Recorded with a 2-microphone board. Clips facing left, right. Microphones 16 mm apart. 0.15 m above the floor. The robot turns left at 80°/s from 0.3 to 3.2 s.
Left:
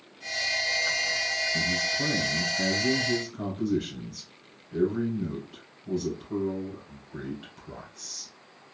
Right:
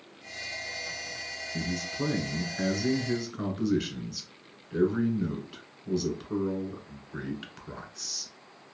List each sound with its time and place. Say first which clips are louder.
1.5 s a man speaking: left 6 dB; 35° left, 1.4 m; by 8.3 s 100° right, 1.4 m